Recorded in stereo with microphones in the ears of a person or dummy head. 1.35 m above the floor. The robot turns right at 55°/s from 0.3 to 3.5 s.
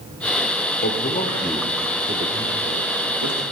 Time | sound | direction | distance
0.8 | a man speaking | 45° left (ahead or behind) | 1.0 m